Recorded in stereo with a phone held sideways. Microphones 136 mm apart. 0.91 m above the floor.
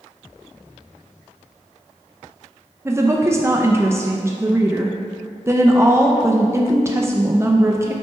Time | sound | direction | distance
2.9 | a woman speaking | 20° right (ahead or behind) | 0.5 m